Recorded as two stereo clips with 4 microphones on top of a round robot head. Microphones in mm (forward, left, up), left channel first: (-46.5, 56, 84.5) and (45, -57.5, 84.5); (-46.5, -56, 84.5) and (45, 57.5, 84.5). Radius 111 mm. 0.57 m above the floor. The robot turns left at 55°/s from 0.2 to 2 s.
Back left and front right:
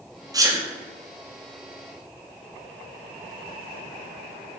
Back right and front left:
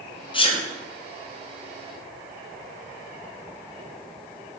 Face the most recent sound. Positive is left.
turn(degrees=170)